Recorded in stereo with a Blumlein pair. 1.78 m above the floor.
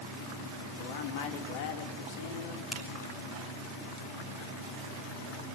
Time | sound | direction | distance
0.8 | a man speaking | 50° left | 3.5 m
2.7 | a finger snap | 10° left | 3 m